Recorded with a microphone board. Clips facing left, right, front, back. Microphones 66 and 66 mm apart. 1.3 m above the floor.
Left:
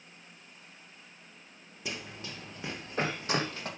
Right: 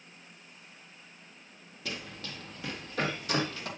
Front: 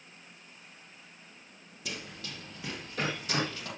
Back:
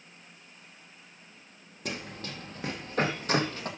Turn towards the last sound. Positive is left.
turn(degrees=140)